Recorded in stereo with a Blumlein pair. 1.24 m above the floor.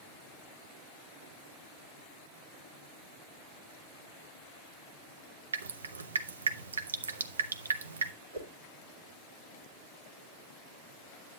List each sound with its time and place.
5.5 s dripping: 70° right, 0.7 m
8.3 s a whoosh: 70° right, 2.5 m